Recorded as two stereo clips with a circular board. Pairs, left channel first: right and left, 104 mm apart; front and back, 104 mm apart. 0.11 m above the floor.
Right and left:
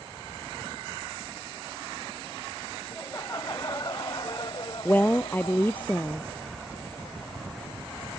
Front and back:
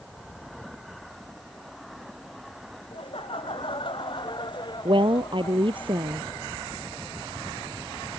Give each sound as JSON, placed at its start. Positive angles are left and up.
{"t": 2.9, "sound": "laughter", "azimuth_deg": -25}
{"t": 4.8, "sound": "a woman speaking", "azimuth_deg": -160}